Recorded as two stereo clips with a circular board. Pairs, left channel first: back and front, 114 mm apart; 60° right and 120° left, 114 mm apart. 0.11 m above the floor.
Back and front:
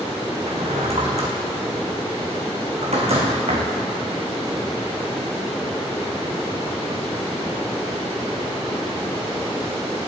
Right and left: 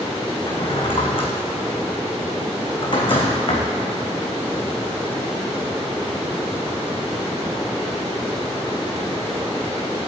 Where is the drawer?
20° right, 3.5 m.